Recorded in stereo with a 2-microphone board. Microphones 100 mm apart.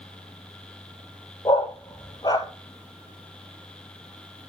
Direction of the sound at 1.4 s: 40° left (ahead or behind).